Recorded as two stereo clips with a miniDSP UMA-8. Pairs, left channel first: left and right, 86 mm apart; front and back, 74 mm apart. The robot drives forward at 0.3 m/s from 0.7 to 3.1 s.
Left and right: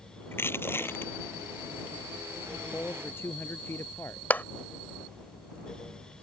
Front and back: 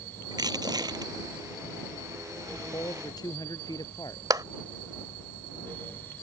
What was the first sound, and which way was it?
Crushing, 155° left.